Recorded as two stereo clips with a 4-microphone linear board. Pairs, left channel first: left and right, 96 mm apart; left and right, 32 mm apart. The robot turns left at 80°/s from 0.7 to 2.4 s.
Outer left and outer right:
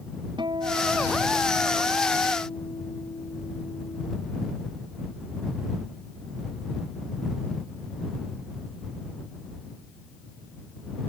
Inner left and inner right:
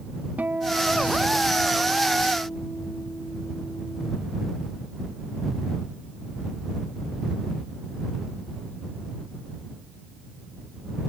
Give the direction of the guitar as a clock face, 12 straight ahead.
4 o'clock.